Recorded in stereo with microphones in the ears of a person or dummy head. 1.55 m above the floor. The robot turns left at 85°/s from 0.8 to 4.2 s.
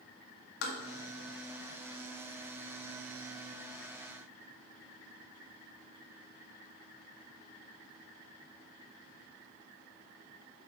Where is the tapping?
65° left (ahead or behind), 1.7 m.